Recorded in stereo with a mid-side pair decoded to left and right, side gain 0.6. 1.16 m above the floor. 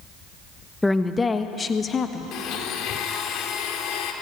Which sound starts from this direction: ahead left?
A blender, at 2.3 s.